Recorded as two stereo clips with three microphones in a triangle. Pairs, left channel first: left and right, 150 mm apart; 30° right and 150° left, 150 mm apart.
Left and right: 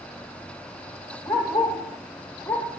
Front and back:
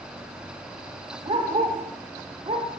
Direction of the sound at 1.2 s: 160° left.